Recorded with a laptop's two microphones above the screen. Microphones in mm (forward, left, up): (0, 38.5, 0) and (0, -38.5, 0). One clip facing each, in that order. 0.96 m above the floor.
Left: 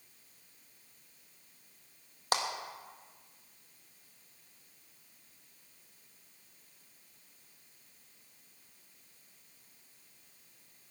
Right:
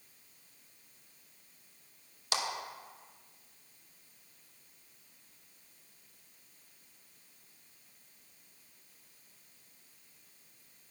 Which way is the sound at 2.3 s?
40° left (ahead or behind).